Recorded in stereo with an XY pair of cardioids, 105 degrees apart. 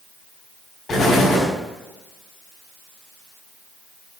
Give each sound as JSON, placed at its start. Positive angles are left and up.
{"t": 0.9, "sound": "an explosion", "azimuth_deg": 45, "distance_m": 5.5}